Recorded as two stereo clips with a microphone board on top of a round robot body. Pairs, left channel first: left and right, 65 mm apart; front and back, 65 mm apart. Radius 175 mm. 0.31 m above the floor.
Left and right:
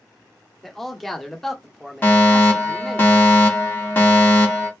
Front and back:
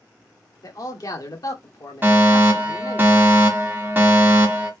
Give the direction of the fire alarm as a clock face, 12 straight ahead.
7 o'clock.